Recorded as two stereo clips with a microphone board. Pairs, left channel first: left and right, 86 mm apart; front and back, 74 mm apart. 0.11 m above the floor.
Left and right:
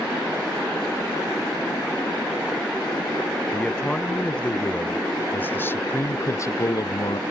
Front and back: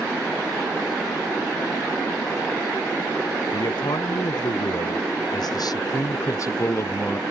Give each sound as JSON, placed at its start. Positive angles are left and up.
{"t": 3.5, "sound": "a man speaking", "azimuth_deg": 10}